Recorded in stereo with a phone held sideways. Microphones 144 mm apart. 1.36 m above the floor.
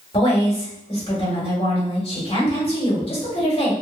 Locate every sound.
0.1 s a woman speaking: 40° left (ahead or behind), 1.7 m